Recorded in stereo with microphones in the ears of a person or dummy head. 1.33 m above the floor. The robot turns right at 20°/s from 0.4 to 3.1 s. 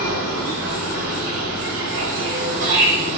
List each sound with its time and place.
0.0 s an insect: 110° right, 2 m; by 3.2 s 60° right, 2 m